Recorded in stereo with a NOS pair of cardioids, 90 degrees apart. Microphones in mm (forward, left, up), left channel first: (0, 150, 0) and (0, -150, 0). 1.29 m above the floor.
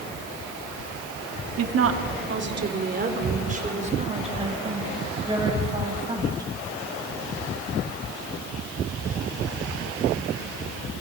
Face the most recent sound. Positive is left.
turn(degrees=-15)